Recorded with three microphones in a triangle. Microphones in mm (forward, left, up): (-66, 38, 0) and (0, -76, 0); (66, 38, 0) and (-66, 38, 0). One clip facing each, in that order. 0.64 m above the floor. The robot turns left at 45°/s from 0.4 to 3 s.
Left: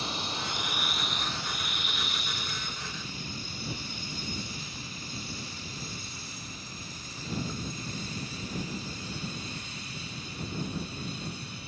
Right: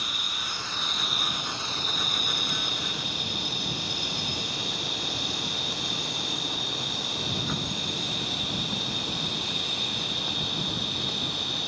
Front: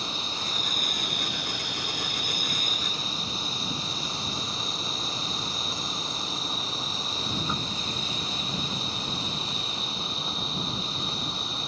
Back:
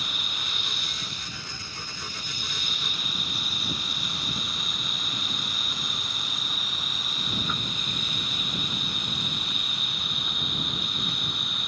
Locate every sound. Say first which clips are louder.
0.0 s an insect: left 4 dB, front 4 dB; 60° left; by 11.7 s 60° right